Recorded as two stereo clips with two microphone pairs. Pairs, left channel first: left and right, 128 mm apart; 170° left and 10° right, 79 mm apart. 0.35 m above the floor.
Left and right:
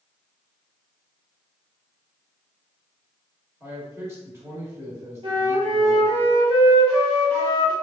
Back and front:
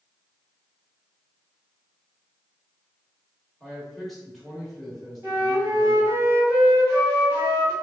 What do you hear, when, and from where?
3.6 s a man speaking: 105° right, 1.2 m
5.2 s a flute: 60° right, 1.8 m